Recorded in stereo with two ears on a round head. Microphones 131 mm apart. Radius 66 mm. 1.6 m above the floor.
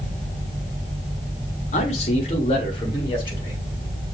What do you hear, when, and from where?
1.7 s a man speaking: 45° left (ahead or behind), 1.2 m; by 3.6 s 30° left (ahead or behind), 2.5 m